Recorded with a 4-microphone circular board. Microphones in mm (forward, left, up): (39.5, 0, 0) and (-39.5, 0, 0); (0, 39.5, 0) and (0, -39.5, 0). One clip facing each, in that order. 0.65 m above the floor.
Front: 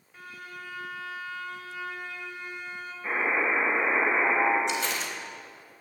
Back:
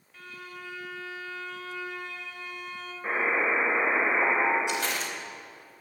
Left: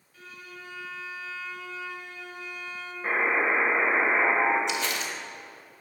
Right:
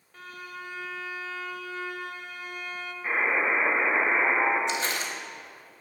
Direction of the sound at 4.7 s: 145° right.